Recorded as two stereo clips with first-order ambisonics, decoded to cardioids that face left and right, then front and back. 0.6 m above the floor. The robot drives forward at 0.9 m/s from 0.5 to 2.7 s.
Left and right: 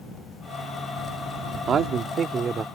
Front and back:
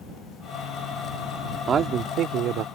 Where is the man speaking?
130° right; by 2.6 s 155° right.